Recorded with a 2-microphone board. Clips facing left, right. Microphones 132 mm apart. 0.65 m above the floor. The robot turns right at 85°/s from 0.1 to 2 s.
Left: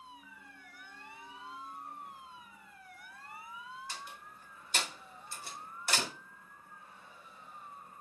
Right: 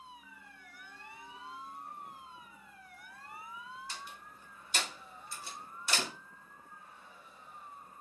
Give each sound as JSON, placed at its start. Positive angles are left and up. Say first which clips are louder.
{"t": 3.9, "sound": "a door slam", "louder": "left 1 dB", "side_deg": 60, "distance_m": 0.9}